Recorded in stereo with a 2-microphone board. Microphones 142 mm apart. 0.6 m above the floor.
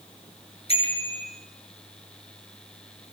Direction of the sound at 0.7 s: 45° left (ahead or behind).